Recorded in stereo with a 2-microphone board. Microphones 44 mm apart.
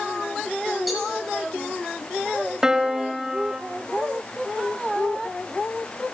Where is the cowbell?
Centre (ahead or behind), 6.5 m.